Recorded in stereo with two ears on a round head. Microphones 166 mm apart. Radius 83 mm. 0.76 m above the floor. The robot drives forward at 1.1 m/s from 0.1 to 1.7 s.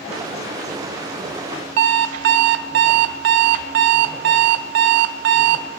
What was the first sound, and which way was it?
An alarm clock, 65° right (ahead or behind).